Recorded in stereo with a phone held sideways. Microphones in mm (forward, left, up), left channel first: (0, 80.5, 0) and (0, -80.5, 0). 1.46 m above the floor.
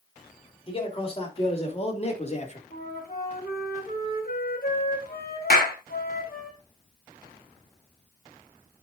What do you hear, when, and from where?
0.7 s a man speaking: 35° left (ahead or behind), 3.5 m; by 2.6 s 45° left (ahead or behind), 2 m
2.7 s a flute: 70° left (ahead or behind), 3 m
5.5 s a clap: 70° left (ahead or behind), 3 m